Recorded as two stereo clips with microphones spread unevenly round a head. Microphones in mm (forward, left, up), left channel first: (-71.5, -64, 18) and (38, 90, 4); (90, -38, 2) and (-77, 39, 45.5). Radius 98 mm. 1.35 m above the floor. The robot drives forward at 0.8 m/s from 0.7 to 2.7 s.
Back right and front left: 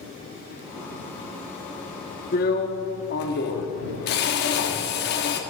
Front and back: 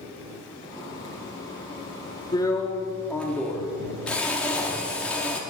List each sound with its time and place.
2.3 s a drill: 100° right, 1.1 m; by 5.4 s 120° right, 1.1 m